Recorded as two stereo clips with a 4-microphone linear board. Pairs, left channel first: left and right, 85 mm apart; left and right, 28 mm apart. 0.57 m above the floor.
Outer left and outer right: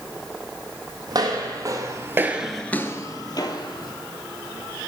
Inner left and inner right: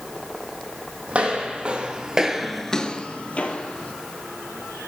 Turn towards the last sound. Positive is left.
turn(degrees=55)  # may be behind; listen again after turning